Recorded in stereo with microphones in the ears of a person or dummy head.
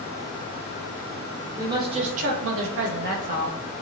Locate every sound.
1.6 s a woman speaking: 25° right (ahead or behind), 1.0 m; by 3.6 s 35° right (ahead or behind), 0.9 m